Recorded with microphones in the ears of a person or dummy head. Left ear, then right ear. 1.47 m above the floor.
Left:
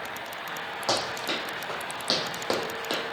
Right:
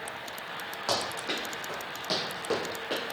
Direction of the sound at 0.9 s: 5° left (ahead or behind).